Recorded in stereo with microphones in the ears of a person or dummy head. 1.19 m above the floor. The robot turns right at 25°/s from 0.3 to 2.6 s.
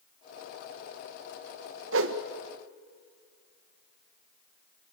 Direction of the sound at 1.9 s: 65° right (ahead or behind).